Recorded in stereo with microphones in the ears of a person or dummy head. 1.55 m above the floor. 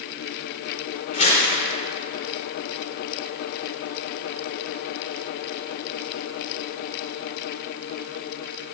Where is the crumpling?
45° left (ahead or behind), 4.5 m.